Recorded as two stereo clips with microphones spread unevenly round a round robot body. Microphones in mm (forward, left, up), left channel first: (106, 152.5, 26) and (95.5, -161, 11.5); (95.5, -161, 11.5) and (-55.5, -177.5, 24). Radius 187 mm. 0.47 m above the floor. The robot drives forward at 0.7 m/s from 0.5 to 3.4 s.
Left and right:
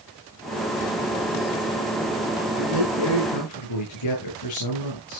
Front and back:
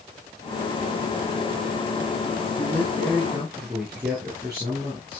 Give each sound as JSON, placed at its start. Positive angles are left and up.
{"t": 2.6, "sound": "a man speaking", "azimuth_deg": 100, "distance_m": 6.0}